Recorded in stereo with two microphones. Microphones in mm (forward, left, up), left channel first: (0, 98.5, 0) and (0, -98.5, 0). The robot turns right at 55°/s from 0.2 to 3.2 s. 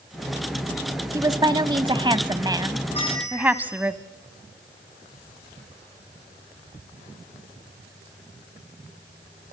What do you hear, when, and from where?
1.1 s a woman speaking: 15° right (ahead or behind), 1.0 m; by 3.9 s 10° right (ahead or behind), 1.0 m
2.9 s a bell: 30° left (ahead or behind), 6 m; by 3.9 s 15° left (ahead or behind), 6 m